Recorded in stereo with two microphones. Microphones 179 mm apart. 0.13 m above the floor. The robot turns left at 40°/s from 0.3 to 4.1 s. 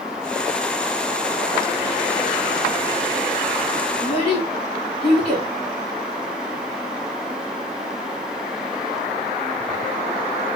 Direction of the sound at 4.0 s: 35° left (ahead or behind).